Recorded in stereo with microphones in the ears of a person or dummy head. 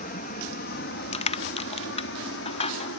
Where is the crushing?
30° left (ahead or behind).